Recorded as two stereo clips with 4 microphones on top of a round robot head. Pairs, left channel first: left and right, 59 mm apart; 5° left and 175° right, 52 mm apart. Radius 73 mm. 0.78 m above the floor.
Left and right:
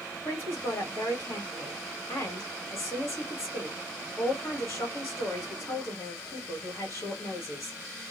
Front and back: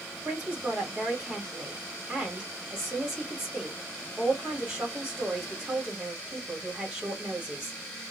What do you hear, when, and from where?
0.2 s a man speaking: 105° left, 1.5 m